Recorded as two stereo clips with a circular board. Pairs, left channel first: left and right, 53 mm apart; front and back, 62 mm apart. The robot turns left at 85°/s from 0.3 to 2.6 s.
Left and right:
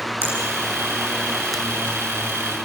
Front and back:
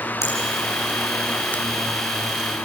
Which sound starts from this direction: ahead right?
A finger snap, at 0.2 s.